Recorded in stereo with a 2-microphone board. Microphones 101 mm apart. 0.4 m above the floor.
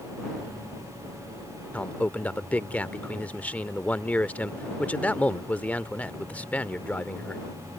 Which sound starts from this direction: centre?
A man speaking, at 1.7 s.